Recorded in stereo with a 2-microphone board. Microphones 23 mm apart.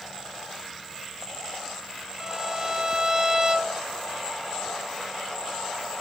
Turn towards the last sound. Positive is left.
turn(degrees=-35)  # may be behind; listen again after turning